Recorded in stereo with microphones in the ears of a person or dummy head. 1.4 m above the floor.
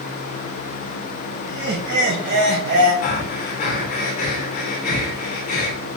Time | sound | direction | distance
1.4 | laughter | 85° right | 0.8 m
3.0 | breathing | 45° left (ahead or behind) | 0.6 m